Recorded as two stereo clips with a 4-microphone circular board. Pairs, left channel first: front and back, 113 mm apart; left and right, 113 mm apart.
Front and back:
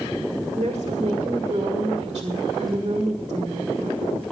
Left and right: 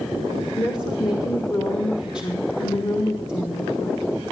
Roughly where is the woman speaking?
Behind left.